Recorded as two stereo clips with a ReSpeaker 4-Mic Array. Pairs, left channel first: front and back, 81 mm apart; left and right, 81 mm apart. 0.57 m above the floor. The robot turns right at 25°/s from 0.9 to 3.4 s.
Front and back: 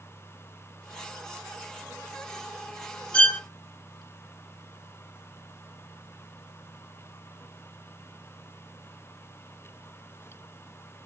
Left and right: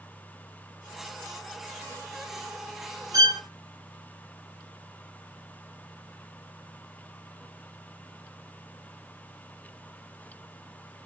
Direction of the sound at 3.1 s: 70° right.